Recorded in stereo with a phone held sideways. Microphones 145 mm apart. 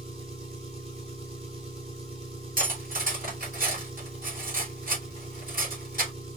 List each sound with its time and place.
0.0 s an engine running: 40° right (ahead or behind), 1.5 m
2.6 s cutlery clinking: 75° right (ahead or behind), 2.5 m